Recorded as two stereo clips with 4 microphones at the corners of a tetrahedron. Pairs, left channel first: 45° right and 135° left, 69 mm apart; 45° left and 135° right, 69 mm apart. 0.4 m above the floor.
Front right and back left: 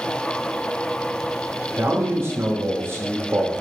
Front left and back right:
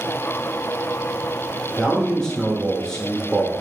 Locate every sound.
1.8 s a man speaking: 125° left, 1.0 m